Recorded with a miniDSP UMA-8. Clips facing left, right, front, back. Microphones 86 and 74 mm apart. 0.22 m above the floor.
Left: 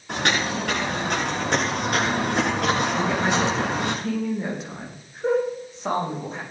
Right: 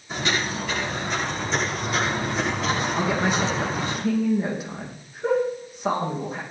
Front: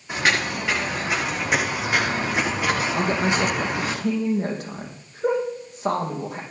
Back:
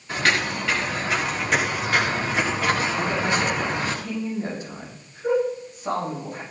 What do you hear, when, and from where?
0.1 s footsteps: 75° left, 9 m; by 4.0 s 80° left, 7 m
3.0 s a woman speaking: 5° right, 7.5 m